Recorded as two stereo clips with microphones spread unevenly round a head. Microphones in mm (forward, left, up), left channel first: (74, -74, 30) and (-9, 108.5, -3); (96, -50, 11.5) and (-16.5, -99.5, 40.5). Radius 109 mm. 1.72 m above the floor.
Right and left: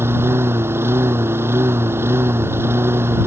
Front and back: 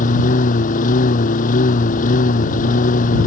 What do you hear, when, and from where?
0.0 s a lawn mower: 35° left